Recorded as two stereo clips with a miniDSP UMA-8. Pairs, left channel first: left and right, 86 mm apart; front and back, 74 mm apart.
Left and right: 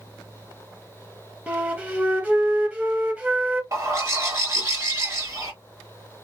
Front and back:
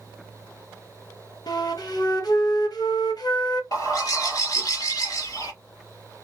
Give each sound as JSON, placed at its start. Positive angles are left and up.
{"t": 1.5, "sound": "a flute", "azimuth_deg": -20, "distance_m": 0.7}
{"t": 3.7, "sound": "a bird", "azimuth_deg": -35, "distance_m": 1.6}